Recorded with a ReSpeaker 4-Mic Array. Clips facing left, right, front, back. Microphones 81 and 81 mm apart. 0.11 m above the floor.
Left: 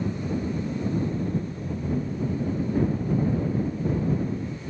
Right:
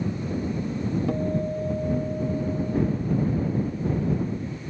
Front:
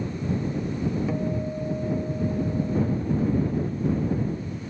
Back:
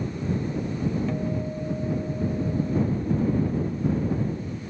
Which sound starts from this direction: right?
A guitar, at 1.1 s.